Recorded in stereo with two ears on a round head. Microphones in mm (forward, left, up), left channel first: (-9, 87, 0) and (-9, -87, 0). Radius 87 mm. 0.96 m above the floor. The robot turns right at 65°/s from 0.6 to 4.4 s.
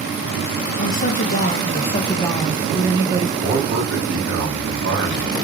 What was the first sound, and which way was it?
A woman speaking, 60° left.